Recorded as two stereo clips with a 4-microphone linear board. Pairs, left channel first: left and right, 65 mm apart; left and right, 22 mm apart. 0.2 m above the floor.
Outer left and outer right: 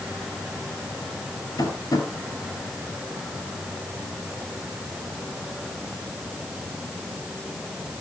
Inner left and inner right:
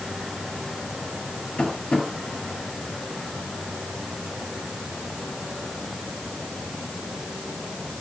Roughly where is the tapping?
Left.